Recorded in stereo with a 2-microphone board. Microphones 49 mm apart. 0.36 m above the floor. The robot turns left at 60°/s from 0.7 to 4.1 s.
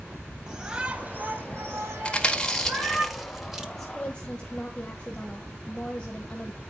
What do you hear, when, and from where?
0.5 s a shout: 20° right, 1.7 m; by 3.0 s 160° right, 1.7 m
2.0 s chewing: 20° left (ahead or behind), 1.5 m; by 3.6 s 10° right (ahead or behind), 1.5 m
3.8 s a woman speaking: 5° left (ahead or behind), 1.6 m; by 6.6 s 20° left (ahead or behind), 1.6 m